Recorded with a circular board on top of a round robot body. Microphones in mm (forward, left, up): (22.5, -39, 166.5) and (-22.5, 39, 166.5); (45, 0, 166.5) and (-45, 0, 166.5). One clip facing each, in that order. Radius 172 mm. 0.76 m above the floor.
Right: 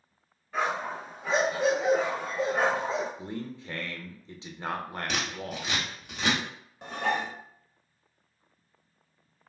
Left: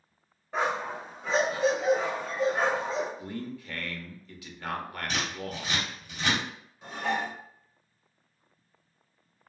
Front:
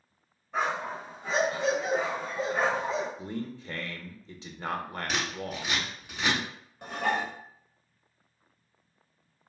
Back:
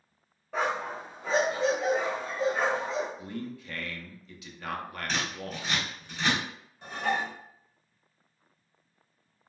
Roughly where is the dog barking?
Behind.